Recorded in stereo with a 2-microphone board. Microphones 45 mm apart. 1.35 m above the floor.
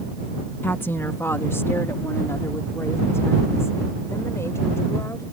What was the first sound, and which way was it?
A woman speaking, 55° left (ahead or behind).